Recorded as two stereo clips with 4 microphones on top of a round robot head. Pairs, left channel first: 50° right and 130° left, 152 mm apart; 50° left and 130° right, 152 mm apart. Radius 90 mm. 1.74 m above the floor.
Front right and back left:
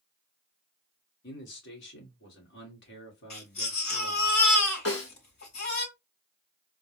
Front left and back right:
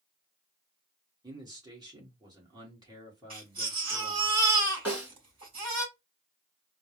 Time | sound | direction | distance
1.2 | a man speaking | 65° right | 1.7 m
3.3 | a baby crying | 75° right | 3 m
4.8 | a snare drum | 55° right | 3 m